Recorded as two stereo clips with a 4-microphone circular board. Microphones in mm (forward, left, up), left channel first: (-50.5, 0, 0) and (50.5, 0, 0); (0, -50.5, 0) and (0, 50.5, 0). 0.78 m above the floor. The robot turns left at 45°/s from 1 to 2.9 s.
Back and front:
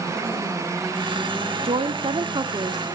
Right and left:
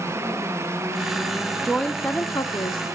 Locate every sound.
1.6 s a woman speaking: straight ahead, 1.4 m; by 2.8 s 50° right, 1.4 m